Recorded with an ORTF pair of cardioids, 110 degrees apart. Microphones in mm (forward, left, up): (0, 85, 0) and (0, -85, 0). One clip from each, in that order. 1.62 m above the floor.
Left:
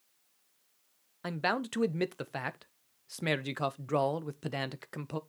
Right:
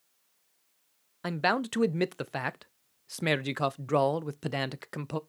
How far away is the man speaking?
About 0.6 m.